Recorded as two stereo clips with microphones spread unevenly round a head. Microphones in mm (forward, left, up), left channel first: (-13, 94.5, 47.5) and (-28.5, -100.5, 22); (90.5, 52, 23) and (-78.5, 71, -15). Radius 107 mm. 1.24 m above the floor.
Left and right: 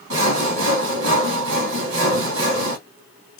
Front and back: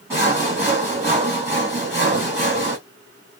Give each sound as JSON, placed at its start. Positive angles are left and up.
{"t": 0.1, "sound": "sawing", "azimuth_deg": -100, "distance_m": 1.8}